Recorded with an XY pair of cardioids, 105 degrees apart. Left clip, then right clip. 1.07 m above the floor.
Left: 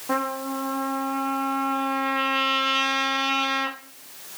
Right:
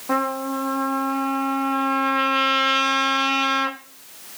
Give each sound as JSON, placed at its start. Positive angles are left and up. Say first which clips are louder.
{"t": 0.1, "sound": "a trumpet", "louder": "right 3 dB", "azimuth_deg": -15, "distance_m": 1.5}